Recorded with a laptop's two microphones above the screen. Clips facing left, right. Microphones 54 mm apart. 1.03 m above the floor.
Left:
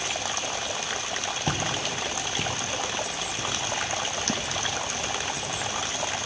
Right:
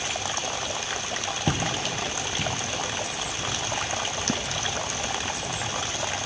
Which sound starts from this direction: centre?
Footsteps, at 1.5 s.